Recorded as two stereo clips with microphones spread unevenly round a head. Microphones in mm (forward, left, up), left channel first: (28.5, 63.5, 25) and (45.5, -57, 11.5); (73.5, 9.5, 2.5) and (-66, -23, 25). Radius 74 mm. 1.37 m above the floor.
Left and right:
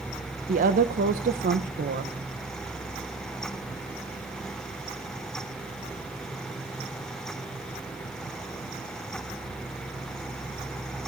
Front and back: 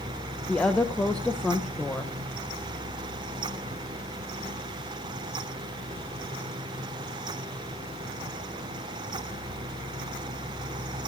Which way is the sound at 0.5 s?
70° right.